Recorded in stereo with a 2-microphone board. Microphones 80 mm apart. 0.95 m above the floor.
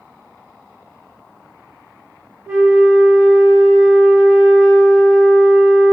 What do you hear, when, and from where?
2.5 s a flute: 15° right (ahead or behind), 1.5 m